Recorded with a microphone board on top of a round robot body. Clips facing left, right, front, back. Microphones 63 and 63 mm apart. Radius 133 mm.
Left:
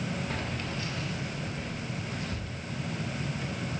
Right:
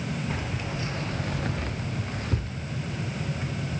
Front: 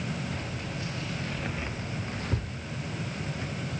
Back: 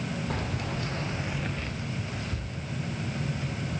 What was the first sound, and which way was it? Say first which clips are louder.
Keys jangling: right 2 dB, back 3 dB; 170° right.